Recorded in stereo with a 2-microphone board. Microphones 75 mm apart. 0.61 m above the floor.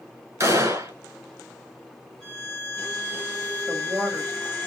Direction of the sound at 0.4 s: 35° right (ahead or behind).